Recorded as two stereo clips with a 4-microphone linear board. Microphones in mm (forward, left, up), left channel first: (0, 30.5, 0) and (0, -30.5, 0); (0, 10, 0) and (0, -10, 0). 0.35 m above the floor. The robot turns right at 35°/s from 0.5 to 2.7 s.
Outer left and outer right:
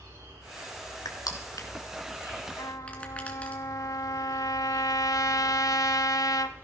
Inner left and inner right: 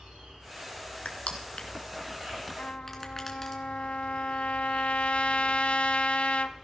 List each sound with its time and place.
0.0 s an insect: 115° right, 6.5 m; by 6.7 s 40° right, 6.5 m
1.1 s crushing: 75° left (ahead or behind), 1.8 m; by 3.6 s 20° left (ahead or behind), 1.8 m
2.6 s a trumpet: 75° left (ahead or behind), 0.8 m; by 6.6 s 70° left (ahead or behind), 0.8 m